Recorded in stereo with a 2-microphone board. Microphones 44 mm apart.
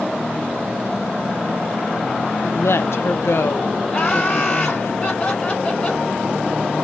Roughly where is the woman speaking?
Left.